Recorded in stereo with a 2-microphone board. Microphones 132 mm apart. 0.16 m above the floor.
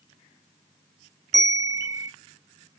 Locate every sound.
1.3 s a bell: 30° right (ahead or behind), 0.6 m